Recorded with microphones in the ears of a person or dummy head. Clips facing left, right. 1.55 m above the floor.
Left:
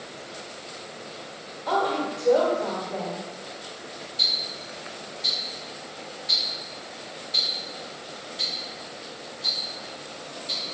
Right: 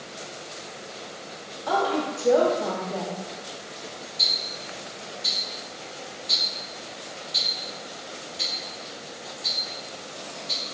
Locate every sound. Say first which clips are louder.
1.7 s a woman speaking: right 1 dB; 10° right (ahead or behind), 0.6 m
4.2 s ticking: right 1 dB; 60° left (ahead or behind), 1.9 m